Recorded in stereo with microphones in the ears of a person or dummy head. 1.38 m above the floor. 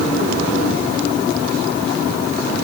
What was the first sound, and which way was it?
Only background noise.